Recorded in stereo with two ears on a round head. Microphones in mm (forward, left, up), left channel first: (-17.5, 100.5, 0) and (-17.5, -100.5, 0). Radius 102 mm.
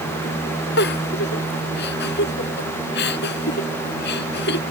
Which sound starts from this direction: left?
A giggle, at 0.8 s.